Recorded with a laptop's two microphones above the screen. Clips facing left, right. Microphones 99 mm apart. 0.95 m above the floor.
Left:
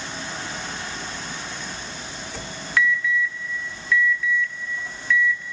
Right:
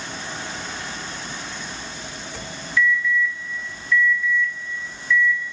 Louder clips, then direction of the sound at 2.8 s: Right 1 dB; 70° left (ahead or behind).